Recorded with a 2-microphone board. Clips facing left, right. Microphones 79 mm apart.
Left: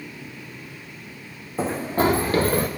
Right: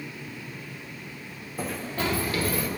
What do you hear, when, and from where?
1.6 s running footsteps: 30° left (ahead or behind), 0.7 m; by 2.7 s 50° left (ahead or behind), 1.4 m